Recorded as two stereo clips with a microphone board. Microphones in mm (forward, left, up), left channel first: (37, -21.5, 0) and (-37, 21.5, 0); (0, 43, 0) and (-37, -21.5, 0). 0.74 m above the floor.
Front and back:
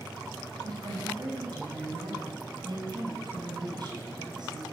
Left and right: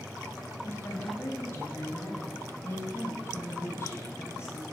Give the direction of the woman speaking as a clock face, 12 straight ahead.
8 o'clock.